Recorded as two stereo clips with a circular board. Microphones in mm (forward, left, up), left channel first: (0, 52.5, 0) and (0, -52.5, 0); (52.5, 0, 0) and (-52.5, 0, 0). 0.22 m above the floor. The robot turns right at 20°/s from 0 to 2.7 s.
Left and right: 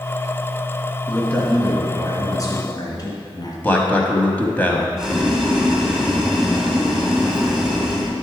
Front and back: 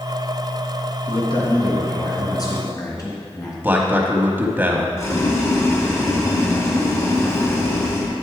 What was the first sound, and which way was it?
A man speaking, 15° left.